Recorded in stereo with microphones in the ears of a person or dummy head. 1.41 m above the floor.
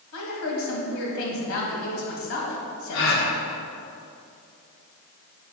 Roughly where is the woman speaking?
Left.